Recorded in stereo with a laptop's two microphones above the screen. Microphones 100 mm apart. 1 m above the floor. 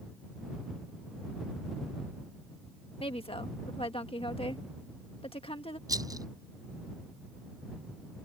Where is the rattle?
40° right (ahead or behind).